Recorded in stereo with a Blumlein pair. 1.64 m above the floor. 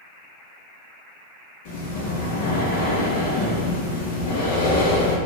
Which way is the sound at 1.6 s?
50° left.